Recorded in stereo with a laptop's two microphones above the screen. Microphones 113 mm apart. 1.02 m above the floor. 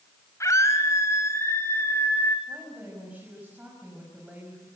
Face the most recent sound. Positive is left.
turn(degrees=-15)  # may be behind; listen again after turning